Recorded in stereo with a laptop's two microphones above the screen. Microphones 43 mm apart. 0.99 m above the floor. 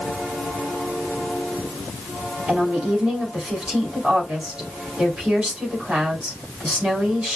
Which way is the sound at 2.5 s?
20° right (ahead or behind).